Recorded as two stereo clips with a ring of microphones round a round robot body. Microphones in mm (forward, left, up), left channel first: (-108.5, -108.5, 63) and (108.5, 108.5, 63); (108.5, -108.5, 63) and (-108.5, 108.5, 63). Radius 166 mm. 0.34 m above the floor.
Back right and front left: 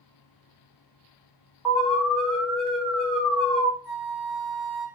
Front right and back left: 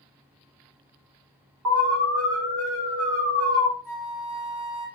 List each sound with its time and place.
1.6 s an alarm: 135° left, 3.5 m
3.8 s a flute: 105° left, 2.5 m